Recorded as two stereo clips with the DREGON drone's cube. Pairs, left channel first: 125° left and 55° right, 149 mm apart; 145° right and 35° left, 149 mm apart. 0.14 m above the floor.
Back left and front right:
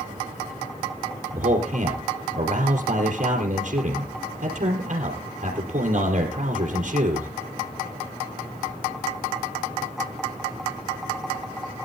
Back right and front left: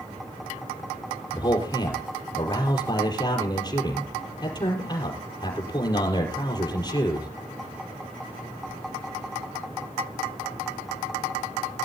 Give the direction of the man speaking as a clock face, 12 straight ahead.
3 o'clock.